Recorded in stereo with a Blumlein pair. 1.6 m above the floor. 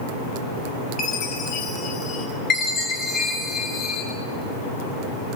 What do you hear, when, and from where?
1.0 s a chime: 30° left, 3.5 m
2.5 s a chime: 25° left, 6 m